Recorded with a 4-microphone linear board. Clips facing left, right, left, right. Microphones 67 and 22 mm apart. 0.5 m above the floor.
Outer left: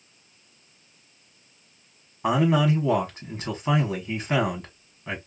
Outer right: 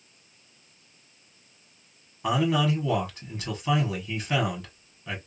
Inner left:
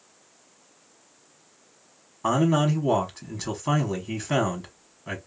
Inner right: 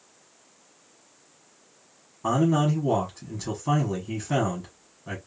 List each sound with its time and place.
2.2 s a man speaking: 20° left (ahead or behind), 1.1 m